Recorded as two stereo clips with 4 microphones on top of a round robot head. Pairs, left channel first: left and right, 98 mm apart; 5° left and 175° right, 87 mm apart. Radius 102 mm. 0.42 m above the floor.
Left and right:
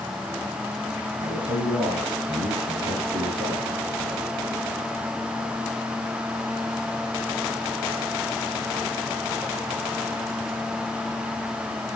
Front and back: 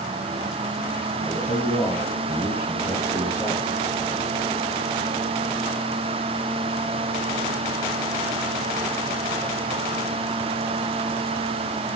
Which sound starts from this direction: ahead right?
A man speaking, at 1.2 s.